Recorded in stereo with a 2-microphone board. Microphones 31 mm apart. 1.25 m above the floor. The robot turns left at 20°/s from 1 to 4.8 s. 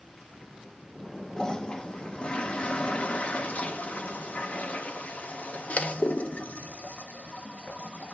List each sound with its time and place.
1.4 s a toilet flushing: 25° left (ahead or behind), 0.5 m; by 8.1 s 55° left (ahead or behind), 0.5 m